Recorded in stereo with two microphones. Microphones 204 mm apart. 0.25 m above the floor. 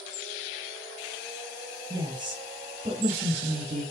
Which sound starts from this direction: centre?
A woman speaking, at 1.9 s.